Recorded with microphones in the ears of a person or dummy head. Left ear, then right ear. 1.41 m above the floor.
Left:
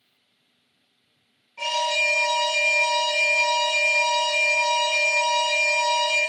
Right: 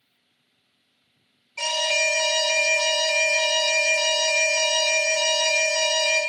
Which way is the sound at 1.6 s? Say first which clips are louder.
Even; 80° right.